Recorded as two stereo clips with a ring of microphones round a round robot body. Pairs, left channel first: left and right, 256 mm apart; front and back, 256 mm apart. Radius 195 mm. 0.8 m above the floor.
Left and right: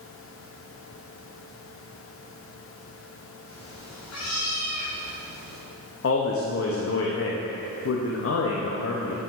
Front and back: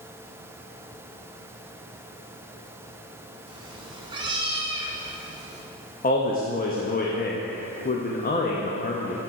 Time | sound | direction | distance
3.5 | a cat meowing | 120° left | 0.8 m
6.0 | a man speaking | 55° left | 0.7 m